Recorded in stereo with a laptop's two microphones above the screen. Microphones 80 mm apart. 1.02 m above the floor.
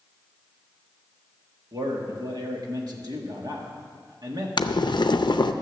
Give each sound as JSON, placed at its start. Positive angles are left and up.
{"t": 1.7, "sound": "a man speaking", "side_deg": -55, "distance_m": 1.5}
{"t": 4.6, "sound": "boiling", "side_deg": 65, "distance_m": 0.5}